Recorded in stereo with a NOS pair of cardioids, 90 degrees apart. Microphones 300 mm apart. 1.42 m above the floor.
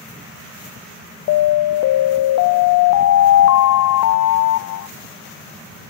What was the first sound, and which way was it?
An alarm, 65° left.